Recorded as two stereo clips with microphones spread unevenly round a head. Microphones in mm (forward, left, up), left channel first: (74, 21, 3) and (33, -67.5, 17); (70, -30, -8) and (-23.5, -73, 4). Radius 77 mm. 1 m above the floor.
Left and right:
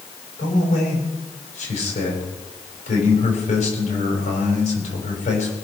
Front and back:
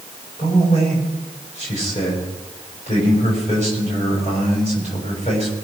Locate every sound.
0.4 s a man speaking: 75° left, 5.5 m